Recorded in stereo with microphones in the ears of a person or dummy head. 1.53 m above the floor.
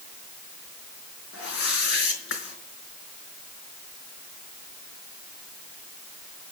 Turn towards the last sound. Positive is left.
turn(degrees=70)  # may be behind; listen again after turning